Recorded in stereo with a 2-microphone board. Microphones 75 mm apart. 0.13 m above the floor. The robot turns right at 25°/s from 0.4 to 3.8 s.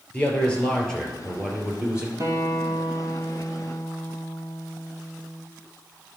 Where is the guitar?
50° right, 1.7 m; by 5.5 s 10° right, 1.7 m.